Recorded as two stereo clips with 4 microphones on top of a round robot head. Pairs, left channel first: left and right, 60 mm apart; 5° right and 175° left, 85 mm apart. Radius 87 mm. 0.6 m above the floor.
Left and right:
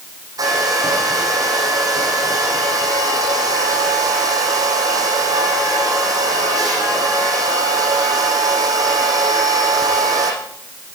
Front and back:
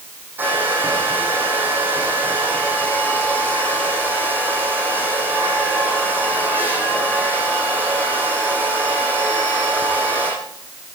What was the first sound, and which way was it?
A hair dryer, 110° right.